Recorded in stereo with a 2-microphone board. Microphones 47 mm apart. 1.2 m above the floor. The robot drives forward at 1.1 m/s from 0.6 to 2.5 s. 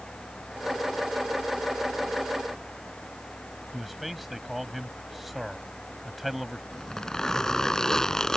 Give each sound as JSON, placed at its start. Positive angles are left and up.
{"t": 3.7, "sound": "a man speaking", "side_deg": 0}
{"t": 6.7, "sound": "a zipper", "side_deg": 10}